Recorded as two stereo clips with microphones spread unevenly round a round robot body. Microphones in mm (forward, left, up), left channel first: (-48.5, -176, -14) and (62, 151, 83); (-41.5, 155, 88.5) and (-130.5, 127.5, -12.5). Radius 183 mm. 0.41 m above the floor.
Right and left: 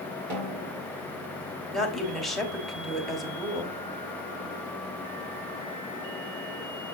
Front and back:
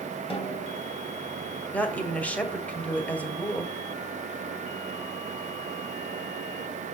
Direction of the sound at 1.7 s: 175° right.